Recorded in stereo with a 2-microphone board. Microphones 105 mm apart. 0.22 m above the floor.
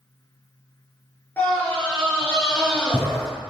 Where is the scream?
20° left (ahead or behind), 3.5 m.